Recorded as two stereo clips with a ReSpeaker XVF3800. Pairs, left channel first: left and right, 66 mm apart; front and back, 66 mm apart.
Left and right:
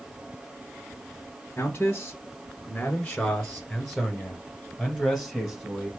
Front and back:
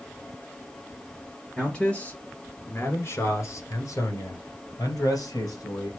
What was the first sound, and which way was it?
A man speaking, 75° left.